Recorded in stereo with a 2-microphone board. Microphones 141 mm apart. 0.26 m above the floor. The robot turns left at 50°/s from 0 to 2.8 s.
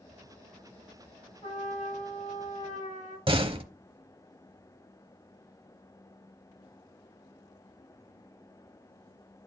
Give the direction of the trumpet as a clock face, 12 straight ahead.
7 o'clock.